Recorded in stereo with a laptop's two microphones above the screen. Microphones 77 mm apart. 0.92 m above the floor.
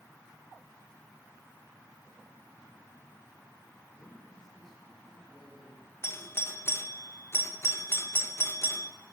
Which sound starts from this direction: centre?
A man speaking, at 3.9 s.